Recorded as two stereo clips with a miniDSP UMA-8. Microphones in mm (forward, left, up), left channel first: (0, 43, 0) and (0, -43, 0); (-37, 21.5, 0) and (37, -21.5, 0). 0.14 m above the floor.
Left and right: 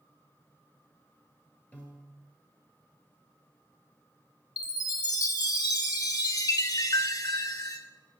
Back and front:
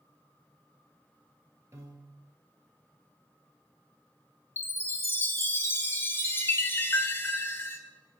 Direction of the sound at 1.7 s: 20° left.